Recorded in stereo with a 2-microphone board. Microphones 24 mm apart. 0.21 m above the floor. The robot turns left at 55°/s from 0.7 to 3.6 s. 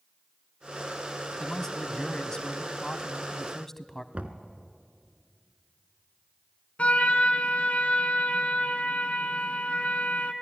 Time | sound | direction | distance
1.4 | a man speaking | 15° left (ahead or behind) | 1.2 m
4.1 | knocking | 60° right (ahead or behind) | 1.6 m
6.8 | a trumpet | 60° left (ahead or behind) | 1.4 m